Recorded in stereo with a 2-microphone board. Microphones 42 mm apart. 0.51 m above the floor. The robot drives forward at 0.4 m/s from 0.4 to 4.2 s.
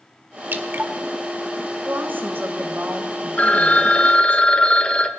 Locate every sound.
0.5 s dripping: 50° right (ahead or behind), 1.4 m
1.9 s a woman speaking: 55° right (ahead or behind), 2.5 m; by 4.4 s 40° right (ahead or behind), 3 m
3.4 s a phone ringing: 35° left (ahead or behind), 0.9 m; by 5.1 s 25° left (ahead or behind), 1.1 m